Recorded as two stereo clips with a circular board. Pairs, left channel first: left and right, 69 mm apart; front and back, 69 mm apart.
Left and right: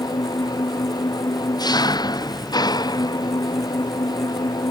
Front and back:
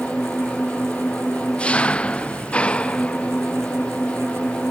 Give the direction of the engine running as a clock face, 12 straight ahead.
10 o'clock.